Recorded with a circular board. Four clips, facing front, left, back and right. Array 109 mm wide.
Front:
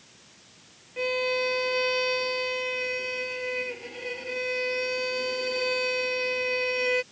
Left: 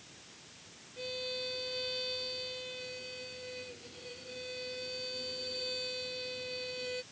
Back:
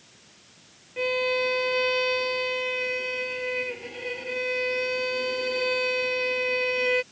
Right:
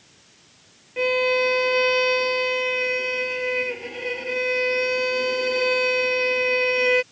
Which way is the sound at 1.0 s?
95° right.